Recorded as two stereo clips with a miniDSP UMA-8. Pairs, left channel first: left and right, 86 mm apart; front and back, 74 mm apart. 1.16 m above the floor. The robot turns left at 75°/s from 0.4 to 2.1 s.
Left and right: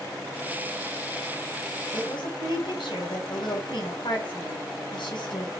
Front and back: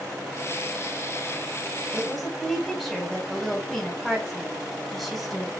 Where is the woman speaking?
105° left, 5 m; by 5.5 s 90° left, 5 m.